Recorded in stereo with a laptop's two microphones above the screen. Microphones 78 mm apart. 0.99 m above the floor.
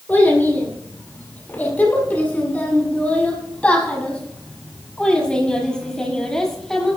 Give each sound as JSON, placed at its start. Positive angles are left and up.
{"t": 0.1, "sound": "a child speaking", "side_deg": 25, "distance_m": 9.0}